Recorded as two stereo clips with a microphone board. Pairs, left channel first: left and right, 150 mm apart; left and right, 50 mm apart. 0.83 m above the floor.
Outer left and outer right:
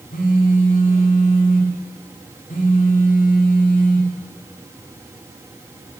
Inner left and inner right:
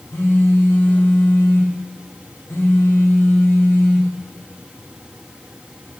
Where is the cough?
No cough in this recording.